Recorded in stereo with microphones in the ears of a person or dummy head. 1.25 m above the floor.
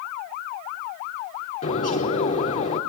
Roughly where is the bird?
Left.